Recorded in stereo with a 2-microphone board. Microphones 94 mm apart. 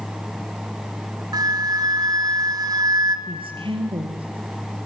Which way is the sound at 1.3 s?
40° right (ahead or behind).